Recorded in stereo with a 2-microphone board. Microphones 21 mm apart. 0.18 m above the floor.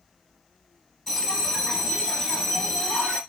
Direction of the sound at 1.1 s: 15° left (ahead or behind).